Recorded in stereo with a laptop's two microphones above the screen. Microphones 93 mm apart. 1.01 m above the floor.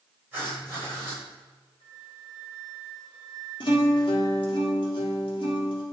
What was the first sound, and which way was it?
Writing, 20° right (ahead or behind).